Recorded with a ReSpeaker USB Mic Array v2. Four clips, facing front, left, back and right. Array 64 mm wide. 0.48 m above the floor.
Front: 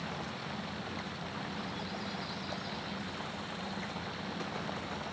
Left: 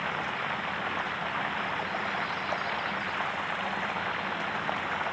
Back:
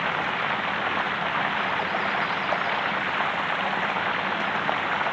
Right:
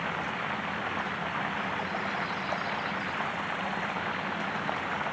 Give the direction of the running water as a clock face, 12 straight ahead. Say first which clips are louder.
Left 1 dB, back 15 dB; 6 o'clock.